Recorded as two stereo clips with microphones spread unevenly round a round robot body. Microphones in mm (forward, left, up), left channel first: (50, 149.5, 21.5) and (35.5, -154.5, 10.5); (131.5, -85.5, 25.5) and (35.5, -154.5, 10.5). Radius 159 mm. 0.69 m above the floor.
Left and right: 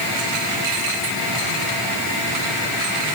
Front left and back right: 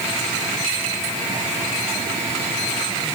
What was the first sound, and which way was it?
Only background noise.